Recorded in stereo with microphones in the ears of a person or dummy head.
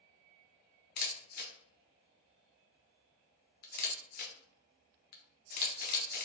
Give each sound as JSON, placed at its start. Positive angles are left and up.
{"t": 1.0, "sound": "a camera shutter", "side_deg": 50, "distance_m": 0.5}